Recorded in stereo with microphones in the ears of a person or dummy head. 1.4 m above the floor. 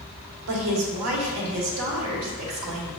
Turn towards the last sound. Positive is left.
turn(degrees=-80)